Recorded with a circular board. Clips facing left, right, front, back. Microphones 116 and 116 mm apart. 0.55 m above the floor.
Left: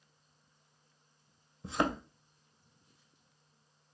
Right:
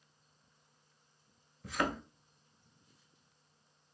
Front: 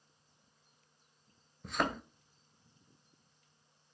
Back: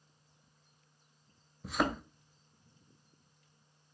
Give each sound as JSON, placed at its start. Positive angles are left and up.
{"t": 1.6, "sound": "a thud", "azimuth_deg": 100, "distance_m": 0.5}